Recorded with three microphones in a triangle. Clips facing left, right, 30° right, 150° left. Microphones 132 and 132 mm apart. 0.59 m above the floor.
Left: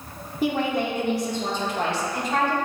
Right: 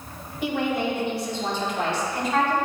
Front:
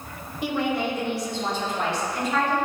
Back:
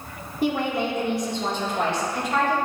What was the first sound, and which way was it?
A woman speaking, 120° left.